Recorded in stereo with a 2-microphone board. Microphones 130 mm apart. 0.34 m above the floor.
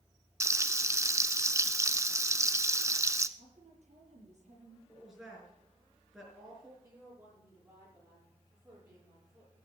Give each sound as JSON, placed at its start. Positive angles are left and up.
{"t": 0.4, "sound": "frying", "side_deg": -25, "distance_m": 0.6}
{"t": 3.4, "sound": "a woman speaking", "side_deg": -60, "distance_m": 7.5}
{"t": 4.9, "sound": "a woman speaking", "side_deg": -5, "distance_m": 5.0}
{"t": 6.8, "sound": "a woman speaking", "side_deg": -20, "distance_m": 8.5}